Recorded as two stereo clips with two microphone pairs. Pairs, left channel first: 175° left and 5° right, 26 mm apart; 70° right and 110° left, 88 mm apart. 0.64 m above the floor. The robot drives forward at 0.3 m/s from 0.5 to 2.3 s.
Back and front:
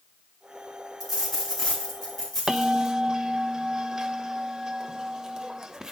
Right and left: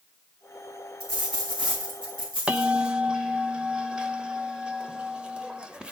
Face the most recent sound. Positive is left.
turn(degrees=40)